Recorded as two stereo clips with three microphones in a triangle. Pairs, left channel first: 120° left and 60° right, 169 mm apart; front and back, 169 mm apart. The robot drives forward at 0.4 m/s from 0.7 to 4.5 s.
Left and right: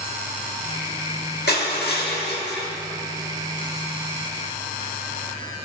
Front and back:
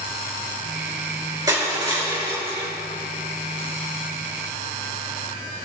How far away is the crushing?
About 2.5 m.